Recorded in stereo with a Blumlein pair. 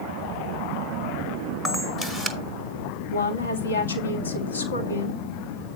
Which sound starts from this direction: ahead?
A camera shutter, at 1.6 s.